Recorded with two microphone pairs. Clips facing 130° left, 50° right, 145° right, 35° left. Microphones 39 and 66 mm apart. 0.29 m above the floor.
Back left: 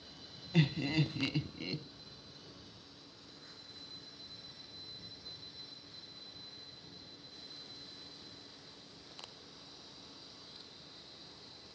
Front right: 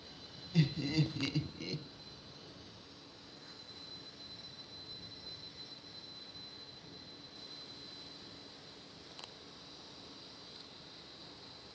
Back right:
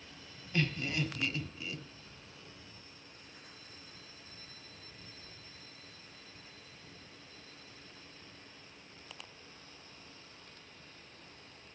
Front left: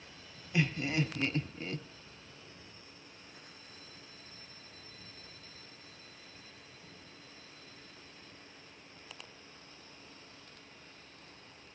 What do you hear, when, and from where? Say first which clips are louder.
0.5 s laughter: back left 1 dB, front left 2 dB; 105° left, 1.5 m; by 1.8 s 65° left, 1.8 m